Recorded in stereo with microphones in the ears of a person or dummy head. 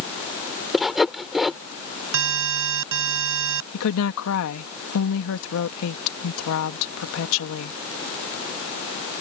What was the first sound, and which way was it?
Sawing, centre (ahead or behind).